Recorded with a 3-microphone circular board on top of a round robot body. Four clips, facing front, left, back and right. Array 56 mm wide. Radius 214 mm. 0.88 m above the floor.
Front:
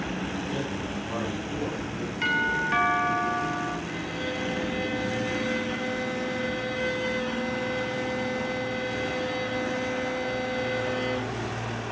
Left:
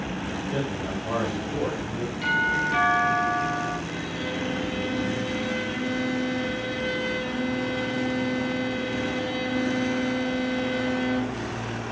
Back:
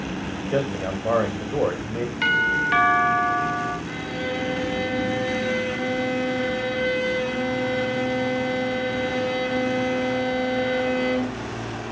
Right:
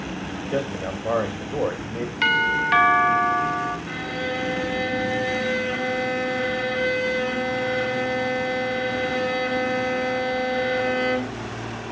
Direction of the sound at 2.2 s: 105° right.